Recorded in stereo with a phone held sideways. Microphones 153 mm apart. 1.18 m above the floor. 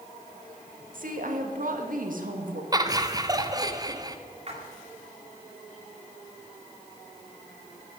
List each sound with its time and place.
0.9 s a woman speaking: 65° right (ahead or behind), 1.9 m
2.7 s laughter: 25° right (ahead or behind), 1.0 m
4.5 s a splash: 45° right (ahead or behind), 2.5 m